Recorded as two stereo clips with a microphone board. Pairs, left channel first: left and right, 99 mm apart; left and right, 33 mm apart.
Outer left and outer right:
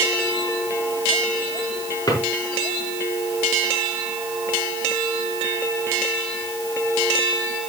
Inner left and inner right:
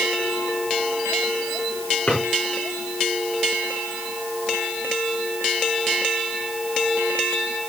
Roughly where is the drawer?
Left.